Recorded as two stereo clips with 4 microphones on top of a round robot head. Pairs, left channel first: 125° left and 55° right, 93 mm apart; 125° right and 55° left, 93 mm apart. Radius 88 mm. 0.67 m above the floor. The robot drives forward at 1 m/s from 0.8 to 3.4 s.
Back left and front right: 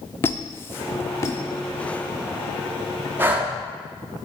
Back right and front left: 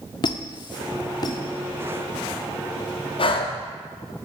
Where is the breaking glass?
I don't hear breaking glass.